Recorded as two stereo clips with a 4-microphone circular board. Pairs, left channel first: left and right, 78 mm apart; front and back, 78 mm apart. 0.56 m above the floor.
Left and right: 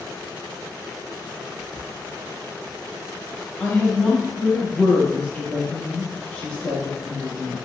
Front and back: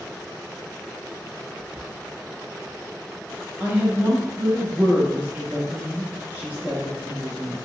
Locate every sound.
1.5 s whispering: 100° left, 0.8 m
3.6 s a woman speaking: 150° left, 0.7 m